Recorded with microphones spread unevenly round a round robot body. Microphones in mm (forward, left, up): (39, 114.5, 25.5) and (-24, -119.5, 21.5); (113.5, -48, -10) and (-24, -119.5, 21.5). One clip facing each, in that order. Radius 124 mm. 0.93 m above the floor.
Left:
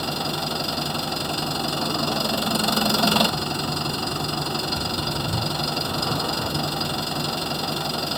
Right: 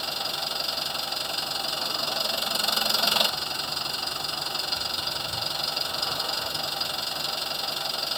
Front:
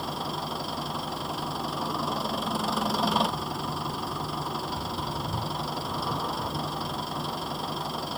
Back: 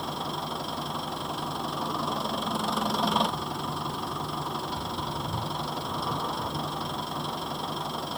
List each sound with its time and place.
0.0 s an engine running: 115° left